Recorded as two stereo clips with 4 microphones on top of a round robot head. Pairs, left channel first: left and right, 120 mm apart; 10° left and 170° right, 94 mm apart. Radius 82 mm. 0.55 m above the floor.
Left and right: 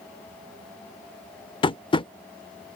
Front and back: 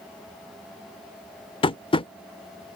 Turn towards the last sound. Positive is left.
turn(degrees=40)